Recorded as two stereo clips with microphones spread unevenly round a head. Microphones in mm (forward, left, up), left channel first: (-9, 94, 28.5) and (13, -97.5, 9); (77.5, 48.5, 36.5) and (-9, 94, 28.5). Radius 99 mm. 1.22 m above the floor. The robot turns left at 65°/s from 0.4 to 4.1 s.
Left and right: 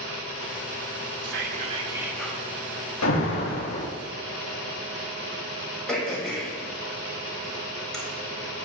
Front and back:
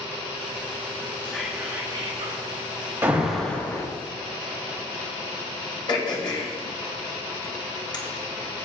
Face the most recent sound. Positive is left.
turn(degrees=10)